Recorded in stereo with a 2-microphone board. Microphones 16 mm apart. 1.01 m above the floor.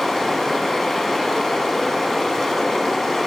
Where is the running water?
30° left (ahead or behind), 1.2 m.